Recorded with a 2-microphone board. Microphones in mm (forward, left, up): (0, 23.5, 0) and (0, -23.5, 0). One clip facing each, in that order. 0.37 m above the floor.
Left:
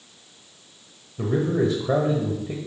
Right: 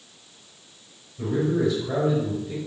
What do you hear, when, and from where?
1.2 s a man speaking: 45° left (ahead or behind), 1.3 m